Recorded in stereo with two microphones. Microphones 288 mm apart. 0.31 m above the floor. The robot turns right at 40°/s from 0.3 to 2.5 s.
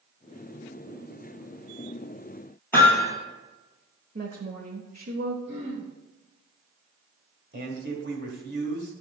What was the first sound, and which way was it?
Hammering, 10° left (ahead or behind).